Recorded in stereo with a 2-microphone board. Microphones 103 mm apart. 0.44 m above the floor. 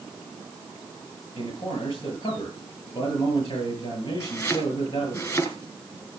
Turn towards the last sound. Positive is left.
turn(degrees=30)  # may be behind; listen again after turning